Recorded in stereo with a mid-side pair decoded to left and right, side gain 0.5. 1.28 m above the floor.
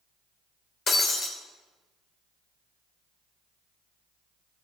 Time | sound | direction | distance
0.9 | breaking glass | 40° left | 3 m